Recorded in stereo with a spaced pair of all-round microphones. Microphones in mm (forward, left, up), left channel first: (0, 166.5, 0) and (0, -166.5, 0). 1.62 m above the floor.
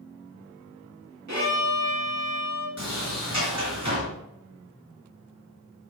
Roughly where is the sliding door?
Right.